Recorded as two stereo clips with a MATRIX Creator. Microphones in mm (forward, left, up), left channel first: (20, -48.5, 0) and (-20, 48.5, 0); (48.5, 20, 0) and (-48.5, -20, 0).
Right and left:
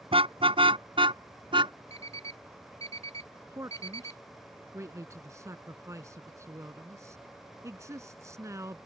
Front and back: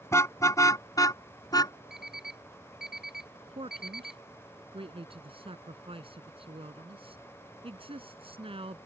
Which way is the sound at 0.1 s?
85° left.